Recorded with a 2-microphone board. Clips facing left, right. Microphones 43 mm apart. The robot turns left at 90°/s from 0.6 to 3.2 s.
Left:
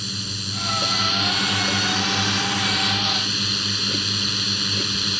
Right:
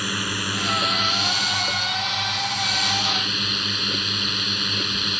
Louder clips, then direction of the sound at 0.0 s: Right 6 dB; 135° right.